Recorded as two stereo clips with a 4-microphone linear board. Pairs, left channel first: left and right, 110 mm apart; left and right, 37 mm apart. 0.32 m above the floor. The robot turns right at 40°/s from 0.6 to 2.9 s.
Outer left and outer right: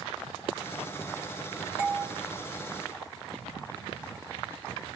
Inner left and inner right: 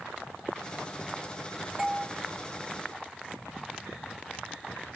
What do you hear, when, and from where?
1.8 s a doorbell: 15° right (ahead or behind), 2.0 m; by 2.1 s 25° right (ahead or behind), 2.0 m